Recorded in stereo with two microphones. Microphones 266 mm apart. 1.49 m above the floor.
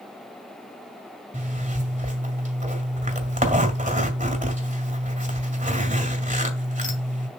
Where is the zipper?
30° right (ahead or behind), 1.8 m.